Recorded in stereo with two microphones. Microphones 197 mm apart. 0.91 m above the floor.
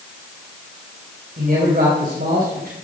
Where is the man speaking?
50° right (ahead or behind), 4.5 m.